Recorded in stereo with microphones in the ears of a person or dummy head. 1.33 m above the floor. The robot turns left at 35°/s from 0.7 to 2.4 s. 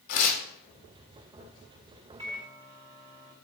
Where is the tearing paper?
75° left (ahead or behind), 2 m.